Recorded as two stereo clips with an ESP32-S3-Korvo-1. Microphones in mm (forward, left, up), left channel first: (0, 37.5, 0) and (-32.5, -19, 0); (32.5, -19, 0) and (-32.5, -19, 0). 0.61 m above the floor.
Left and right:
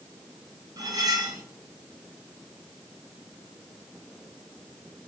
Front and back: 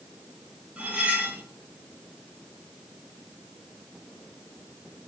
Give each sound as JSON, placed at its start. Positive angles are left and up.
{"t": 0.8, "sound": "cutlery clinking", "azimuth_deg": -105, "distance_m": 0.8}